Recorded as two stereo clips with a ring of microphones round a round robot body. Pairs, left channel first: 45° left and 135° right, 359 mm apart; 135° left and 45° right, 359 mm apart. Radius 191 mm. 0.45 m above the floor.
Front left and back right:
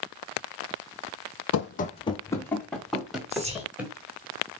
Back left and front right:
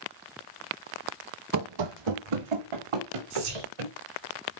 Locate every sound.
1.5 s running footsteps: 5° right, 0.7 m; by 4.0 s 50° right, 3.5 m
3.3 s whispering: 60° right, 4.5 m